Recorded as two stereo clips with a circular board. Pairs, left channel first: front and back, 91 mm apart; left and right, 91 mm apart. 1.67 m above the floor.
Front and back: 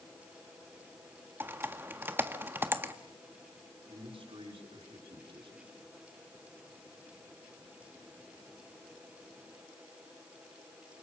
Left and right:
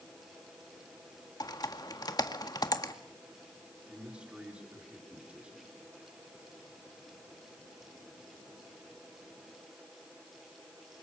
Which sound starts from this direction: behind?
A man speaking, at 3.9 s.